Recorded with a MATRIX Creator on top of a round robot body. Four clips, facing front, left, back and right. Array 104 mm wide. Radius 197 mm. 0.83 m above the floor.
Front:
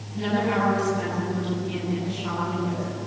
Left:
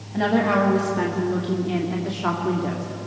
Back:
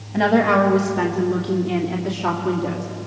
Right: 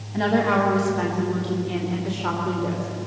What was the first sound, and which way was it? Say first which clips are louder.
A woman speaking: even, back 8 dB; 165° left.